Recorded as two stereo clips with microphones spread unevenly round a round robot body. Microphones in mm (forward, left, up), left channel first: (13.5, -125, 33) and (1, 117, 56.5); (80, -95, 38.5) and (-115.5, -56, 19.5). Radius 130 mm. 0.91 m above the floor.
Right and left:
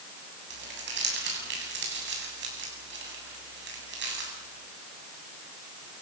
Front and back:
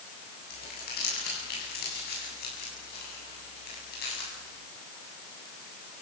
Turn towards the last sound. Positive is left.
turn(degrees=45)